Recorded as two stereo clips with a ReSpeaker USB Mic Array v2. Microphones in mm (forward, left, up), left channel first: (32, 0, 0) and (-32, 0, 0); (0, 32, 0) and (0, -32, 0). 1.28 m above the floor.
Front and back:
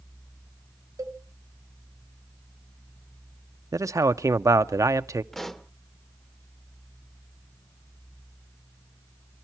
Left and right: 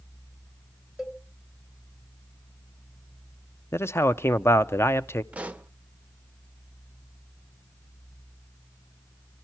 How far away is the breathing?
I don't hear breathing.